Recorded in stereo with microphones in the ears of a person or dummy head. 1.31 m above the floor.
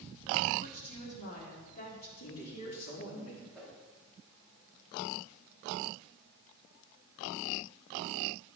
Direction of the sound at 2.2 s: 85° left.